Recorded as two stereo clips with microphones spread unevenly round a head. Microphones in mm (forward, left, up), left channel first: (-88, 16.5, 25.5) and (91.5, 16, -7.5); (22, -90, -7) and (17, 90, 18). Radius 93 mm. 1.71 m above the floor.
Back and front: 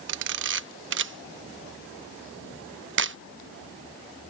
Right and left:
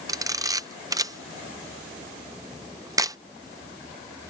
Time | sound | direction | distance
0.1 | a camera shutter | 25° left | ?